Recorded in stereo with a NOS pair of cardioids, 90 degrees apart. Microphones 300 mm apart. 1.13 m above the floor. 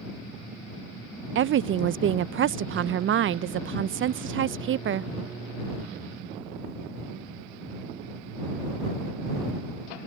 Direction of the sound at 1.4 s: 40° right.